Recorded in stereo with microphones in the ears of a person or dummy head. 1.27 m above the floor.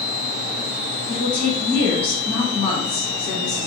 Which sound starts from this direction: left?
A woman speaking, at 1.1 s.